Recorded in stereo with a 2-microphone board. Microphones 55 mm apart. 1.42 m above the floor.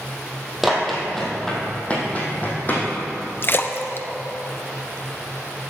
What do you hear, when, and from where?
0.6 s running footsteps: centre (ahead or behind), 2.5 m; by 2.9 s 35° left (ahead or behind), 3.5 m
3.4 s a splash: 40° left (ahead or behind), 0.7 m